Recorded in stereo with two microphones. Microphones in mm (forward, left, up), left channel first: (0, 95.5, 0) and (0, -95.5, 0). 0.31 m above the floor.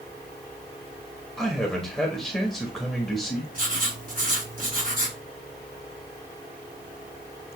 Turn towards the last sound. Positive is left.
turn(degrees=-45)  # may be behind; listen again after turning